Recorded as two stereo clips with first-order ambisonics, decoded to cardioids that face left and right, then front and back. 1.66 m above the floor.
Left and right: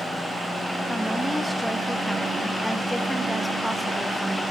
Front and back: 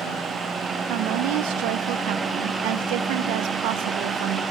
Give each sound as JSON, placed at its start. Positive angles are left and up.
{"t": 0.9, "sound": "a woman speaking", "azimuth_deg": 180, "distance_m": 1.2}